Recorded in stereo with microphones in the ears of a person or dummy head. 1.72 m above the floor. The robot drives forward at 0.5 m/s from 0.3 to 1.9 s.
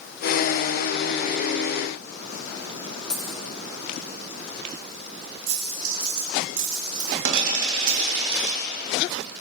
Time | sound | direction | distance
3.1 | a dropped coin | 5° left (ahead or behind) | 4 m
5.5 | a dropped coin | 75° right (ahead or behind) | 4.5 m